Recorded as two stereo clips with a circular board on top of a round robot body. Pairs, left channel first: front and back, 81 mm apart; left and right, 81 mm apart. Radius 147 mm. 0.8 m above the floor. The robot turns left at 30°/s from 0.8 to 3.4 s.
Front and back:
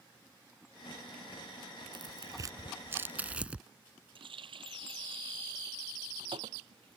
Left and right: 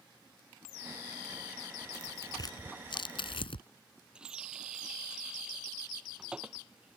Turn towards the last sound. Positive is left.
turn(degrees=-170)